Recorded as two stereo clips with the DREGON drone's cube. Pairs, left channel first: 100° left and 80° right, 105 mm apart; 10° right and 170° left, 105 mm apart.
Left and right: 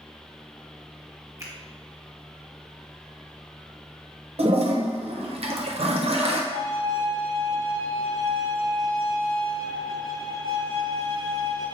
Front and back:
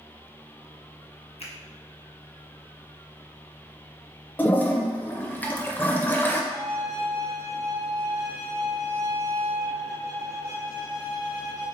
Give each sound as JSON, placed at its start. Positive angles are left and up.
{"t": 1.4, "sound": "a finger snap", "azimuth_deg": -20, "distance_m": 0.9}
{"t": 4.4, "sound": "a toilet flushing", "azimuth_deg": -85, "distance_m": 0.5}
{"t": 6.5, "sound": "a violin", "azimuth_deg": 70, "distance_m": 1.7}